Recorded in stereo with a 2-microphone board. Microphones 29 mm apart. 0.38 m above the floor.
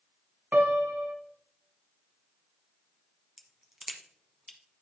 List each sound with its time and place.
0.5 s a piano: 75° right (ahead or behind), 0.8 m
3.4 s a crack: 10° right (ahead or behind), 1.0 m